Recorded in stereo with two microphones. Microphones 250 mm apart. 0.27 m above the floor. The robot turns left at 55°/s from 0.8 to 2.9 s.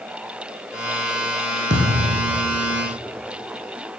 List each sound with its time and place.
1.7 s a thud: 45° right, 7 m; by 2.4 s 80° right, 7 m